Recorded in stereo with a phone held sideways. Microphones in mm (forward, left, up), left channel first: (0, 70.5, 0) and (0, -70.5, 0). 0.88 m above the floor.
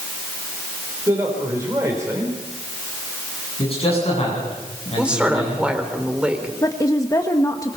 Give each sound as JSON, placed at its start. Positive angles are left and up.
{"t": 1.1, "sound": "a man speaking", "side_deg": -20, "distance_m": 4.0}
{"t": 3.6, "sound": "a man speaking", "side_deg": 45, "distance_m": 9.5}
{"t": 5.0, "sound": "a woman speaking", "side_deg": -5, "distance_m": 3.5}
{"t": 6.6, "sound": "a woman speaking", "side_deg": 25, "distance_m": 1.2}